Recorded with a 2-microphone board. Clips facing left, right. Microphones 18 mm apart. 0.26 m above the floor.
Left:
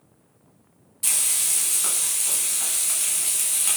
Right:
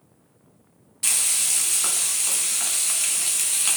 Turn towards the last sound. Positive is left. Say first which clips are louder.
# right 2 dB
turn(degrees=-20)  # may be behind; listen again after turning